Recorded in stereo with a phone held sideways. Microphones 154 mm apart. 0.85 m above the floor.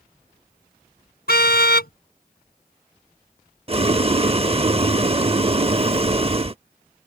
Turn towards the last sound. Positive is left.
turn(degrees=-40)  # may be behind; listen again after turning